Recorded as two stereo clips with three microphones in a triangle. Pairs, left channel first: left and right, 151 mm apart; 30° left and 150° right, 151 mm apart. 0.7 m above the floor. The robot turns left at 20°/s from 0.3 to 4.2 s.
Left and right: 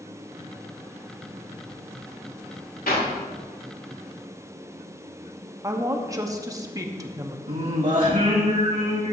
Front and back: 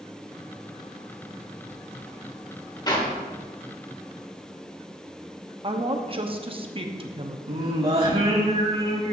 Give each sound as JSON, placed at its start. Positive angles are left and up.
{"t": 2.9, "sound": "a clap", "azimuth_deg": 90, "distance_m": 1.8}
{"t": 5.6, "sound": "a woman speaking", "azimuth_deg": -140, "distance_m": 0.9}
{"t": 7.5, "sound": "singing", "azimuth_deg": -105, "distance_m": 2.0}